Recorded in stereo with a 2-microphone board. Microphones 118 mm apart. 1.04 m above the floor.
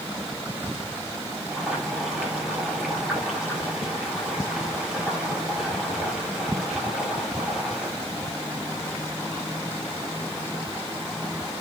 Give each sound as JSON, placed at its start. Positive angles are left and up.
{"t": 1.5, "sound": "boiling", "side_deg": -10, "distance_m": 6.0}